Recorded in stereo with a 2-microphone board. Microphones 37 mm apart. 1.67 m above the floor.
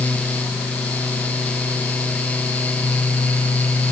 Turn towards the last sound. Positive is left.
No sound to turn to.